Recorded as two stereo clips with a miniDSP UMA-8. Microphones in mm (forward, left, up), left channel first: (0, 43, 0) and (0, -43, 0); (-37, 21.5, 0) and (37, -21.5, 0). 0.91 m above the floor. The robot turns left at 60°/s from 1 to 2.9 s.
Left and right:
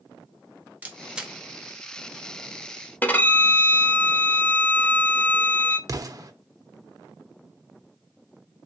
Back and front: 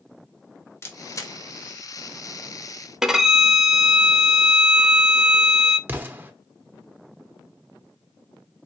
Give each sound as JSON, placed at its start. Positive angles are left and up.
{"t": 0.8, "sound": "a camera shutter", "azimuth_deg": -160, "distance_m": 0.7}
{"t": 3.0, "sound": "a violin", "azimuth_deg": 45, "distance_m": 0.6}
{"t": 5.9, "sound": "an explosion", "azimuth_deg": -85, "distance_m": 0.6}